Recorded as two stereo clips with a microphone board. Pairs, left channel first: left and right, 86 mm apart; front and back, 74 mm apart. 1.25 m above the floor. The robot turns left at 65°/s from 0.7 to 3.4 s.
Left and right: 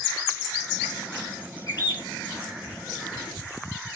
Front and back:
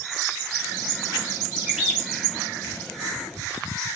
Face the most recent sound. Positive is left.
turn(degrees=0)